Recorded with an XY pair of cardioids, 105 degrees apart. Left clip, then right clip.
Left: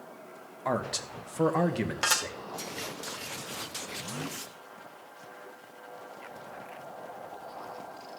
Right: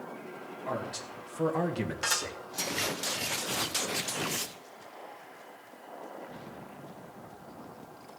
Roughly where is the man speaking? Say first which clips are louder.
Left 5 dB; left.